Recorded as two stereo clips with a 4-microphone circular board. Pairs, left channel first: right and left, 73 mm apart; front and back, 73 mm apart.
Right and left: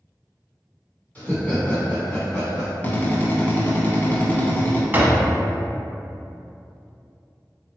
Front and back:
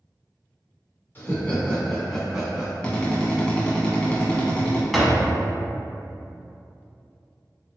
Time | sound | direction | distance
1.1 | laughter | 35° right | 1.6 m
2.8 | a drill | 60° right | 0.8 m
4.9 | a door slam | 85° left | 0.7 m